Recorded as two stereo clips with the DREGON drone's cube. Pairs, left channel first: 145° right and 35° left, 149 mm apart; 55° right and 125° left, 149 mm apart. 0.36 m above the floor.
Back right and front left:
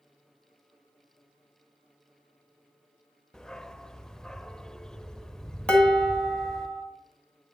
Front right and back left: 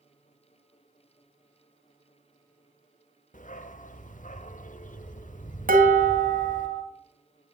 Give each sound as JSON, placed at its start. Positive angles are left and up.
{"t": 3.3, "sound": "a dog barking", "azimuth_deg": -60, "distance_m": 0.6}
{"t": 5.7, "sound": "dishes clattering", "azimuth_deg": 130, "distance_m": 2.0}